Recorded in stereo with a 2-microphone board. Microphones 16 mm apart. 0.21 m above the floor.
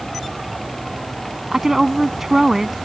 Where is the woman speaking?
20° right (ahead or behind).